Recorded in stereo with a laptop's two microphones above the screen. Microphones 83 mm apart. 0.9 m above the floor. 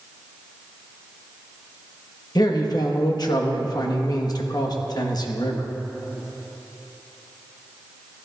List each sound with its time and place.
2.4 s a man speaking: 50° left (ahead or behind), 0.9 m